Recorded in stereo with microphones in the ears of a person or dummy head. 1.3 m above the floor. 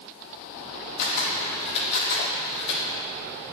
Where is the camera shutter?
65° left (ahead or behind), 3.5 m.